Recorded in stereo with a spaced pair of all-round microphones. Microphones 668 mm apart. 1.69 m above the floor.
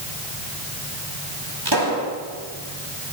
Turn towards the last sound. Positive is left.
turn(degrees=-35)  # may be behind; listen again after turning